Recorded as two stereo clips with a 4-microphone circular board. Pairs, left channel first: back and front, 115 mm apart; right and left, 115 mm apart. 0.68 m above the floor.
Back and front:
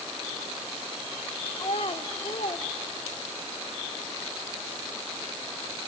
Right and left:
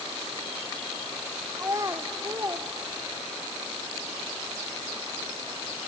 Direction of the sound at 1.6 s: 150° left.